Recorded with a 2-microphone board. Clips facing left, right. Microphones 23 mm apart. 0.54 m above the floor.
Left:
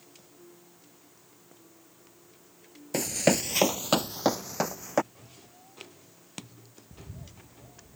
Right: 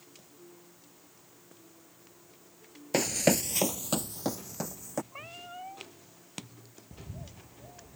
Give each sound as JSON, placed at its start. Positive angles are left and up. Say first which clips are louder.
{"t": 2.9, "sound": "running footsteps", "louder": "left 1 dB", "side_deg": -20}
{"t": 5.1, "sound": "a cat meowing", "louder": "right 10 dB", "side_deg": -75}
{"t": 6.9, "sound": "a bird", "louder": "right 1 dB", "side_deg": -30}